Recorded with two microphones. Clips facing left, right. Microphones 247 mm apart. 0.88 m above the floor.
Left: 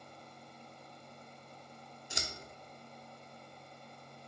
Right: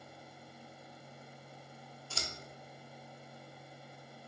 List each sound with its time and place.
2.1 s scissors: 15° left (ahead or behind), 0.5 m